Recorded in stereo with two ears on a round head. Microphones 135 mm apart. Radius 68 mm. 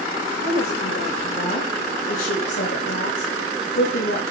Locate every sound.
0.4 s a woman speaking: 60° left (ahead or behind), 4.5 m